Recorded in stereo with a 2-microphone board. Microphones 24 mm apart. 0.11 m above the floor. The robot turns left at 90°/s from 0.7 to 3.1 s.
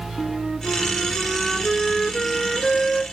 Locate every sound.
0.2 s a flute: 25° right (ahead or behind), 0.8 m; by 3.0 s 20° left (ahead or behind), 0.8 m